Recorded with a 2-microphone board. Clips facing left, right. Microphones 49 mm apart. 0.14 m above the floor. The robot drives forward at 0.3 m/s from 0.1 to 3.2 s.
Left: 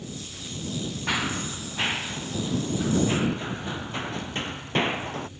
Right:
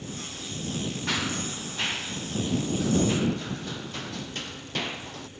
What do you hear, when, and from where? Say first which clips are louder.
1.1 s running footsteps: left 3 dB; 10° left (ahead or behind); by 5.3 s 30° left (ahead or behind)